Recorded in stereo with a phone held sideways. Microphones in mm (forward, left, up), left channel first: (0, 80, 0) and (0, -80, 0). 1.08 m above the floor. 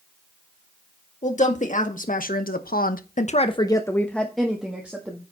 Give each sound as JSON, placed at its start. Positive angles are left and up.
{"t": 1.2, "sound": "a woman speaking", "side_deg": 50, "distance_m": 2.0}